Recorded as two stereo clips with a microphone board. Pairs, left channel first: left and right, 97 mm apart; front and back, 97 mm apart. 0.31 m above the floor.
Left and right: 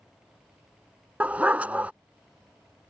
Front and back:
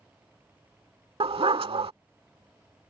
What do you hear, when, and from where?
1.2 s a dog barking: 165° right